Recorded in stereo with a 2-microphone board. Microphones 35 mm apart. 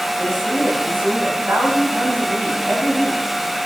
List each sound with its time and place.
0.2 s a woman speaking: 80° right, 8.5 m